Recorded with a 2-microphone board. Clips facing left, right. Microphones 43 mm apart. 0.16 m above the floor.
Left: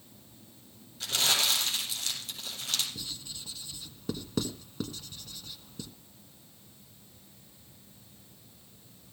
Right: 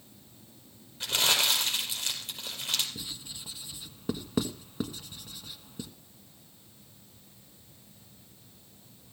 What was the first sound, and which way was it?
Crumpling, 25° right (ahead or behind).